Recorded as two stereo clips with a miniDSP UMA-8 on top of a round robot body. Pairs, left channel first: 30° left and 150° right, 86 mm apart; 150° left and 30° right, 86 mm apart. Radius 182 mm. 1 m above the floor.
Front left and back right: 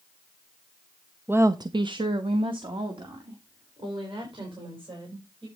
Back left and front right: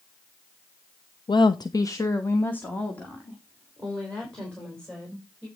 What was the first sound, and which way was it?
A woman speaking, 145° left.